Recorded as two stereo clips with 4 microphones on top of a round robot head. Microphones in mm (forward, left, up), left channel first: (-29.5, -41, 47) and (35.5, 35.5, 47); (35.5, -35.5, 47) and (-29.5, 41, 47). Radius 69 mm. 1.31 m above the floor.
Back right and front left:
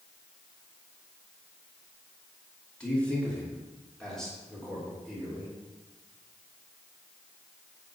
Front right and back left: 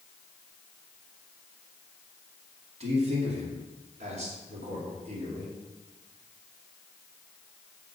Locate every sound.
2.8 s a man speaking: 150° left, 3 m; by 5.5 s 140° left, 4 m